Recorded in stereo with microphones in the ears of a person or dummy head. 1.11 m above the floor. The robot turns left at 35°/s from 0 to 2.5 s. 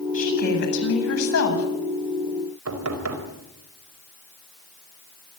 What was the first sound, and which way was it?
A woman speaking, 140° left.